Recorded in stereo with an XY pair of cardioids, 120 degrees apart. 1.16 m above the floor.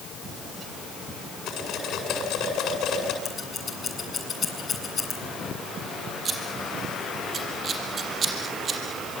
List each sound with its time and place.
1.5 s cutlery clinking: 65° left, 8 m
3.2 s scissors: 30° left, 8 m
6.2 s scissors: 40° right, 5 m